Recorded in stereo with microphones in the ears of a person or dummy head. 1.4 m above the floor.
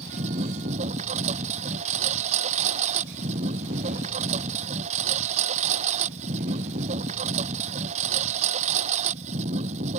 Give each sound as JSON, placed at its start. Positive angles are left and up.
{"t": 0.0, "sound": "a lawn mower", "side_deg": -40}